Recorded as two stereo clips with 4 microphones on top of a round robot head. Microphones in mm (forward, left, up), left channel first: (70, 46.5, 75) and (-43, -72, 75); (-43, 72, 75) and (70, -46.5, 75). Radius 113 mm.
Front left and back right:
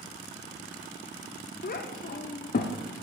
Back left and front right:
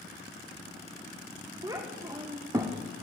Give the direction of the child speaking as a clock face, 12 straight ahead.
11 o'clock.